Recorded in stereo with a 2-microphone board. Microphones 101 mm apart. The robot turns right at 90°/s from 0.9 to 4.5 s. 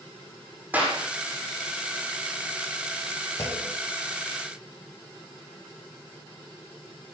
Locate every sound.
0.7 s a clap: 15° right (ahead or behind), 7.5 m; by 1.0 s 25° right (ahead or behind), 7.5 m
3.4 s a clunk: 140° left, 2.5 m; by 3.8 s 170° left, 2.5 m